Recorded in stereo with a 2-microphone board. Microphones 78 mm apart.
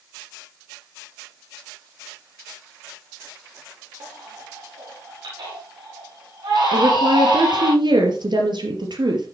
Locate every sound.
4.0 s a baby crying: 75° right (ahead or behind), 7.5 m
6.7 s a woman speaking: 70° right (ahead or behind), 4 m